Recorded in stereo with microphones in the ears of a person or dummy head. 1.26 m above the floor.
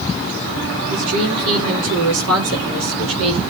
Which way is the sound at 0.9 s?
70° right (ahead or behind).